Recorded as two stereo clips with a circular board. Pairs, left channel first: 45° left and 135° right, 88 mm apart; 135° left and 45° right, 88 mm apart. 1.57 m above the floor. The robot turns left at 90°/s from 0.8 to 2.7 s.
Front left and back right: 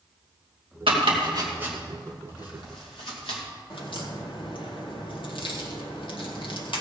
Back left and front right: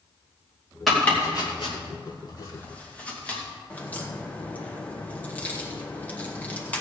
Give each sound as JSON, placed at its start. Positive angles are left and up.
{"t": 0.9, "sound": "chopping", "azimuth_deg": -135, "distance_m": 2.5}
{"t": 3.7, "sound": "a crack", "azimuth_deg": 65, "distance_m": 1.8}